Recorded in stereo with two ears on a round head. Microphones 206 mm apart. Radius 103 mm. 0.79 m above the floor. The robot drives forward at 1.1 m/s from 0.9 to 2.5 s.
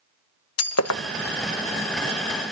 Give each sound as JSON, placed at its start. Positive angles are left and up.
{"t": 0.6, "sound": "breaking glass", "side_deg": 70, "distance_m": 1.0}